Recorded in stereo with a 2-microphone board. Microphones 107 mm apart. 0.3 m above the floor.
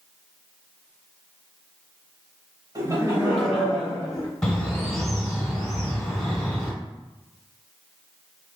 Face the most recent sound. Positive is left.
turn(degrees=5)  # may be behind; listen again after turning